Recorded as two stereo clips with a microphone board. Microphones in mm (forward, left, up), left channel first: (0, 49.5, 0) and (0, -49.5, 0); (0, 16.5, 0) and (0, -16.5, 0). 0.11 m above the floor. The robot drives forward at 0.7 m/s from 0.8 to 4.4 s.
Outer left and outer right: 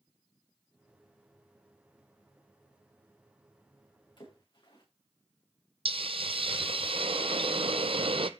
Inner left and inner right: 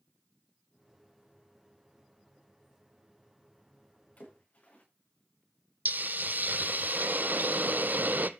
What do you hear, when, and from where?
4.2 s a splash: 50° left (ahead or behind), 6.5 m
5.8 s a hiss: 70° right (ahead or behind), 0.8 m